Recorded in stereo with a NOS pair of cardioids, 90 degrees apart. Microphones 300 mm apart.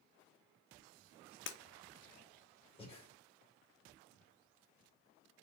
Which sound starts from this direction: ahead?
Breathing, at 2.8 s.